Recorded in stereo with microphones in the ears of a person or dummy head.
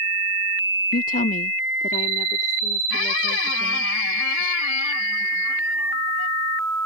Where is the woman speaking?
50° left (ahead or behind); by 3.9 s 35° left (ahead or behind).